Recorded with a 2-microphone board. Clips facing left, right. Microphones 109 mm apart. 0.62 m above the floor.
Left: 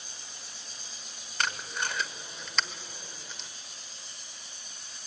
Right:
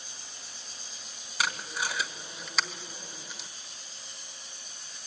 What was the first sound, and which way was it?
Tape being pulled, 5° right (ahead or behind).